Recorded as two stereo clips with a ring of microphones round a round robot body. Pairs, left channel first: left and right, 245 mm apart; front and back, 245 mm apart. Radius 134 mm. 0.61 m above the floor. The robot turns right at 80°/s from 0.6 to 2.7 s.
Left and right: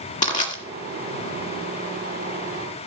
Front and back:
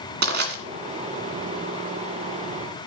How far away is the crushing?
About 1.8 m.